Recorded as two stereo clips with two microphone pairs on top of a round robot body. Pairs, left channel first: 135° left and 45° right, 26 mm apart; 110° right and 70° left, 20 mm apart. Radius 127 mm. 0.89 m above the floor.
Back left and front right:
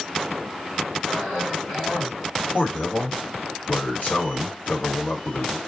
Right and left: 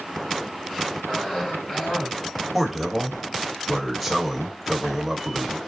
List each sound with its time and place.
1.1 s a cough: 140° right, 4 m
2.5 s a man speaking: 165° left, 1.9 m